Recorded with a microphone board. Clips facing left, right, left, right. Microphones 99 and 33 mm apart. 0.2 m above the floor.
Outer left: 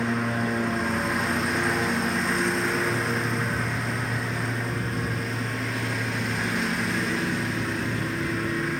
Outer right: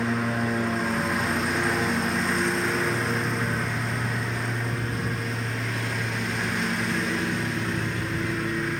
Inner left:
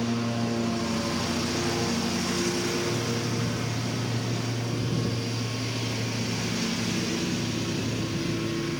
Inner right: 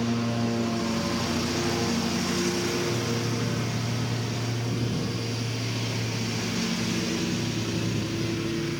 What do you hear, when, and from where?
0.0 s a lawn mower: centre (ahead or behind)